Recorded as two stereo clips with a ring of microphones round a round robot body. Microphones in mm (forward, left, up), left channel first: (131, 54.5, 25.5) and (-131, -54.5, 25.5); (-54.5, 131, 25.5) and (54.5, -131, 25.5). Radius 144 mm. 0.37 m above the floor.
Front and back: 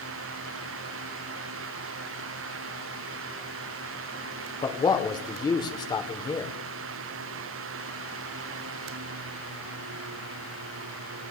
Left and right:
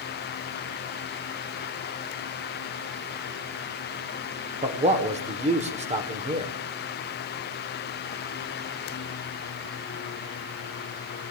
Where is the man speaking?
35° right, 1.4 m.